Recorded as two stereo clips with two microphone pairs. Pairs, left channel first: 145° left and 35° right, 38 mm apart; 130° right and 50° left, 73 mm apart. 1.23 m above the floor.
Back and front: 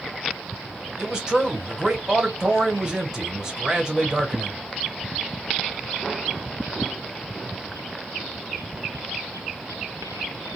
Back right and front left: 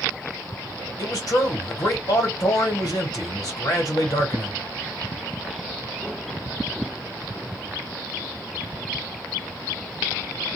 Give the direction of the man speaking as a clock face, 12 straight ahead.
3 o'clock.